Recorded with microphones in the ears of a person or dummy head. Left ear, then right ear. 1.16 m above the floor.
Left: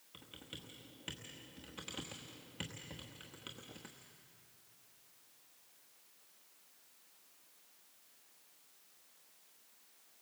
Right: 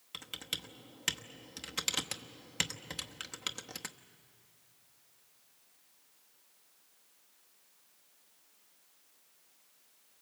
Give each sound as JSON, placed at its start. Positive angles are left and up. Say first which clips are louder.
{"t": 0.1, "sound": "typing on a keyboard", "louder": "right 12 dB", "side_deg": -70, "distance_m": 1.0}